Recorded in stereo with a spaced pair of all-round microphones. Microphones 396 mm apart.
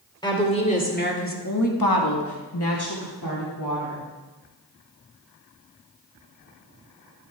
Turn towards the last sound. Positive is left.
turn(degrees=45)  # may be behind; listen again after turning